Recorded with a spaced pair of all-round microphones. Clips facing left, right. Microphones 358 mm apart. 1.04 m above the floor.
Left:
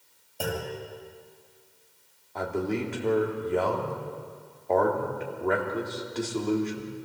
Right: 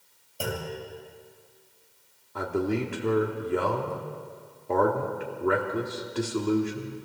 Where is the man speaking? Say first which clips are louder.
Right 2 dB; 20° right (ahead or behind), 3 m.